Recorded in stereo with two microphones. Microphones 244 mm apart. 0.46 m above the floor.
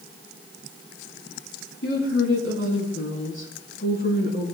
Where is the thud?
No thud in this recording.